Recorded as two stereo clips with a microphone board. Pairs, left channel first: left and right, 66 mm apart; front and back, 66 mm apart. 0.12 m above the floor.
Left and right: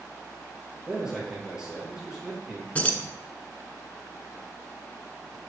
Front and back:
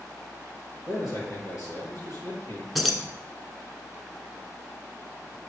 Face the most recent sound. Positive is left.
turn(degrees=90)